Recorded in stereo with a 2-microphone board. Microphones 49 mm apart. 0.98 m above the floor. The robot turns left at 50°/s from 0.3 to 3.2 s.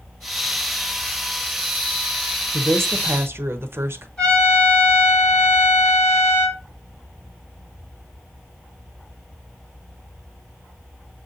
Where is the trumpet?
25° left (ahead or behind), 3.5 m.